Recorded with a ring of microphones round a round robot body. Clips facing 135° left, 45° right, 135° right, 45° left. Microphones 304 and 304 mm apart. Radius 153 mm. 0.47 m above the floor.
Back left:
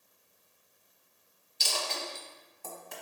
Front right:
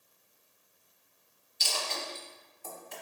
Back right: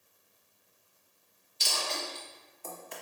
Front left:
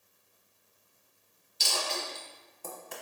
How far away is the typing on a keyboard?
No typing on a keyboard in this recording.